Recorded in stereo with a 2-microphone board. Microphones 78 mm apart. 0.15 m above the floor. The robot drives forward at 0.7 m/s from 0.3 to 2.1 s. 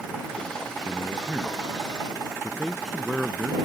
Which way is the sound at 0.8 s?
5° right (ahead or behind).